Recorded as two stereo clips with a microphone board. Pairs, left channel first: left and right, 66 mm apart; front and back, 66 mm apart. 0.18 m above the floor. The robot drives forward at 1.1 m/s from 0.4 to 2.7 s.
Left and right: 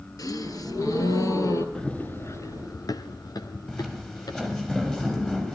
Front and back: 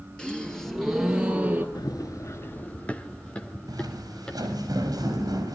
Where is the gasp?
75° left, 1.9 m; by 1.6 s 120° left, 2 m.